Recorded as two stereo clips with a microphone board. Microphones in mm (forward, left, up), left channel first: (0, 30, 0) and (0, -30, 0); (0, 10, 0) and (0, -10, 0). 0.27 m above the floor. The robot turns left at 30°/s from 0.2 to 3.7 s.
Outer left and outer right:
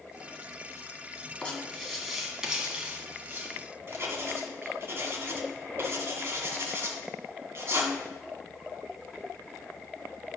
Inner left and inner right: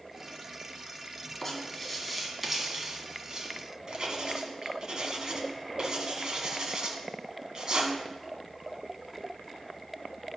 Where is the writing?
15° left (ahead or behind), 1.9 m; by 7.9 s 40° right (ahead or behind), 1.9 m.